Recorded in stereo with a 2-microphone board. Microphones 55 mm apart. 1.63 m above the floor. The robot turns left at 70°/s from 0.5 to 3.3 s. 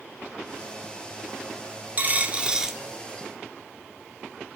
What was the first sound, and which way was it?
A dropped coin, 115° right.